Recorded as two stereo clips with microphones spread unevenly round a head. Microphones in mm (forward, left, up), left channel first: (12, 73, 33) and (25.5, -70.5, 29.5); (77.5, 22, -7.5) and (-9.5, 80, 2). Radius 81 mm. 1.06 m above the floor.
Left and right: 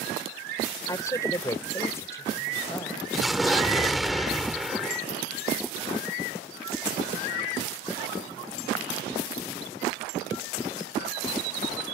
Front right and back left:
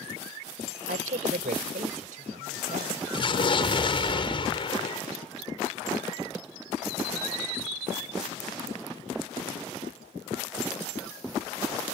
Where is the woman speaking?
170° left.